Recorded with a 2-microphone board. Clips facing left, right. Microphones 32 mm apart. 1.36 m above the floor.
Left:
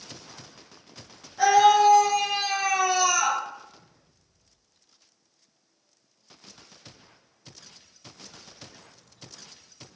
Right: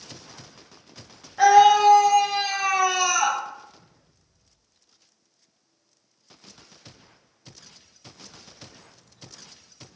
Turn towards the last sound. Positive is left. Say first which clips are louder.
# right 3 dB
turn(degrees=-45)  # may be behind; listen again after turning